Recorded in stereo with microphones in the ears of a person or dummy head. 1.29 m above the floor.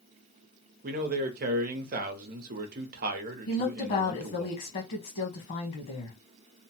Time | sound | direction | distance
0.8 | a man speaking | 50° right (ahead or behind) | 0.8 m
3.5 | a woman speaking | 45° left (ahead or behind) | 1.0 m